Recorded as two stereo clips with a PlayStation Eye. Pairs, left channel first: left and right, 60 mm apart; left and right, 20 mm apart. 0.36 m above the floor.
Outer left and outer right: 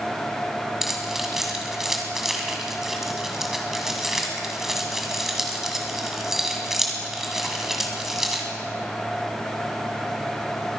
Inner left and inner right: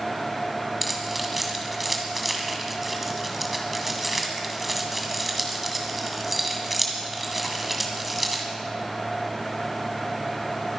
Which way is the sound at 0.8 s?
5° right (ahead or behind).